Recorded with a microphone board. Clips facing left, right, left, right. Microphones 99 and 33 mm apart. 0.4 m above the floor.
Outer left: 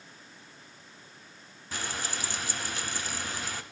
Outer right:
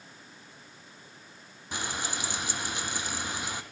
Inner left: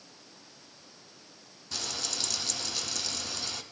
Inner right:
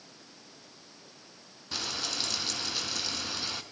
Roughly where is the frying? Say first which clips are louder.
Outer right 1 dB, inner right 2 dB; centre.